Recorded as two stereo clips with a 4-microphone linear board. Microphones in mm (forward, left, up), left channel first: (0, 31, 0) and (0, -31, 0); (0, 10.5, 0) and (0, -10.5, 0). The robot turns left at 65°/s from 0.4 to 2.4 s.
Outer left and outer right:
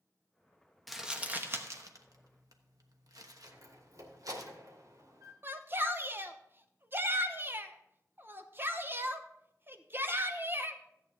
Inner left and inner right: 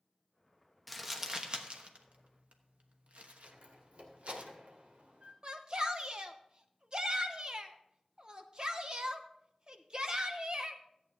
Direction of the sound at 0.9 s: Centre (ahead or behind).